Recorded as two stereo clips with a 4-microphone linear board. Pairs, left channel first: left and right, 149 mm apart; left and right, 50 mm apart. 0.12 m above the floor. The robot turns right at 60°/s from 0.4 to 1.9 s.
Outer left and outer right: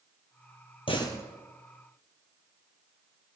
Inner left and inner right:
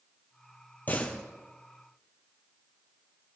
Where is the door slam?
40° left (ahead or behind), 2 m; by 1.3 s 15° left (ahead or behind), 2 m.